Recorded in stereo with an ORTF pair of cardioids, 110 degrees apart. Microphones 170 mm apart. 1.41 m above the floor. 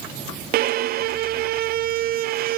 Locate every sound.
0.5 s a violin: 65° right, 0.6 m